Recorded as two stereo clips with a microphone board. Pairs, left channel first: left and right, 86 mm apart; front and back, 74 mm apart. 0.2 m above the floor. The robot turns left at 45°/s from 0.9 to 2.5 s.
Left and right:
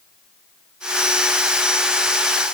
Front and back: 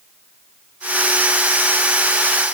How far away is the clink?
No clink in this recording.